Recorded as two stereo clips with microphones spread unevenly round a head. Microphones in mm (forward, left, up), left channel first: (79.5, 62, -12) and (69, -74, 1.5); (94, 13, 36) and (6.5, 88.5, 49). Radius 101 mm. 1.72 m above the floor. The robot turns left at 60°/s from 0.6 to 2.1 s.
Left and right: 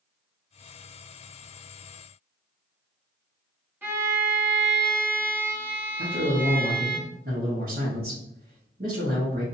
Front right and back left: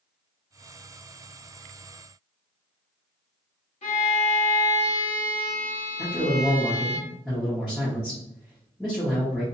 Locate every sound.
3.8 s a violin: 25° right, 1.2 m
6.0 s a man speaking: 135° right, 1.1 m